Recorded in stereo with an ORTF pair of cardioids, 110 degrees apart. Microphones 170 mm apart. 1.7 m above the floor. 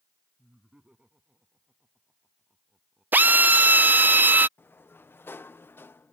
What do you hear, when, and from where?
0.4 s laughter: 5° right
3.1 s a drill: 10° right
4.6 s a sliding door: 15° left